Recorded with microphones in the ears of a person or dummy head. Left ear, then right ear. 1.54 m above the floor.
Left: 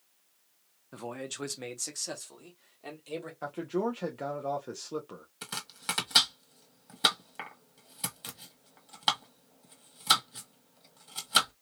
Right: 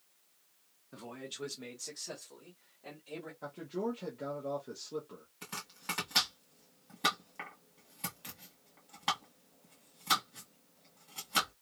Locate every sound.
0.9 s a man speaking: 15° left (ahead or behind), 0.6 m; by 3.3 s 80° left, 1.8 m
3.4 s a man speaking: 30° left (ahead or behind), 0.5 m
5.4 s chopping: 30° left (ahead or behind), 1.3 m